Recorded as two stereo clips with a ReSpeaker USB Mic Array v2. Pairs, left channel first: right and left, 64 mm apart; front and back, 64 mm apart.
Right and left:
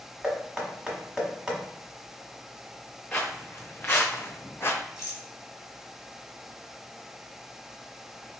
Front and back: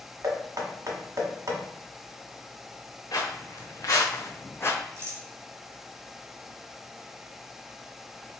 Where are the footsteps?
20° right, 1.3 m; by 4.8 s 55° right, 0.5 m.